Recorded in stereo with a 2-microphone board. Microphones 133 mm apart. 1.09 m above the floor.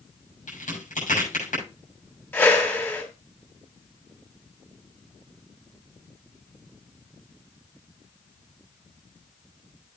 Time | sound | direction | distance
0.5 | a crack | 85° left | 7.5 m
2.3 | a whoosh | 15° left (ahead or behind) | 3 m